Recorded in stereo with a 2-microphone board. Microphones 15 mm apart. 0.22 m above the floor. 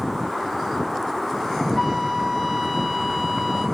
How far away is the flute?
About 2.5 m.